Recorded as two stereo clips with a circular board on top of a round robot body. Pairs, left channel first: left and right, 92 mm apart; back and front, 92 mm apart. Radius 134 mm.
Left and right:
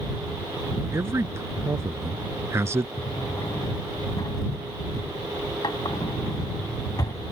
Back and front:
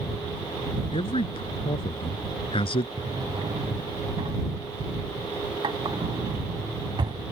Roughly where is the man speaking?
Behind right.